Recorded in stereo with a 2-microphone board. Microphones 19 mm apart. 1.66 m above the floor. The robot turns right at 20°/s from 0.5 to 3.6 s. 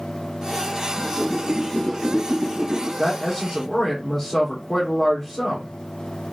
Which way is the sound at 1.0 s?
Centre (ahead or behind).